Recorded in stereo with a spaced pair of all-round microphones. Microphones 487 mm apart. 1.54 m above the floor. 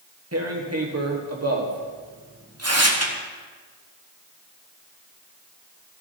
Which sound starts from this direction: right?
Tearing paper, at 0.3 s.